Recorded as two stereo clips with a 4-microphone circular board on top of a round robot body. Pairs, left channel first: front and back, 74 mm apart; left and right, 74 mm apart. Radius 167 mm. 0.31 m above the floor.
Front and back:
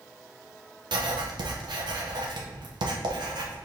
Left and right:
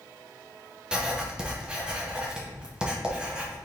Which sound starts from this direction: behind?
Writing, at 0.9 s.